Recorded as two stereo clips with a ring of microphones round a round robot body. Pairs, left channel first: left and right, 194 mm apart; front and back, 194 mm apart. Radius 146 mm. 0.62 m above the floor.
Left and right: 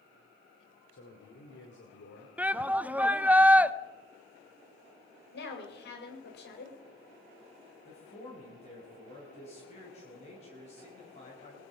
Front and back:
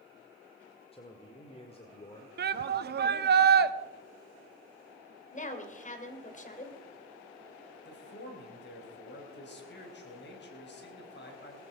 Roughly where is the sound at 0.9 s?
Ahead left.